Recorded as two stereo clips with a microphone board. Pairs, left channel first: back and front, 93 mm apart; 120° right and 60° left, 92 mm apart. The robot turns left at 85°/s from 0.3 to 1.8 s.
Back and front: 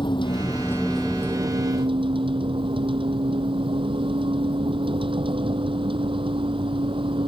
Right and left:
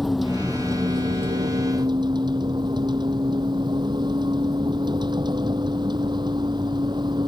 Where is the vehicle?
150° left; by 7.3 s 20° left.